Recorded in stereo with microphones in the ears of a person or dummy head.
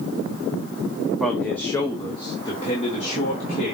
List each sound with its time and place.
1.2 s a man speaking: 5° right (ahead or behind), 1.0 m; by 3.8 s 35° left (ahead or behind), 2.5 m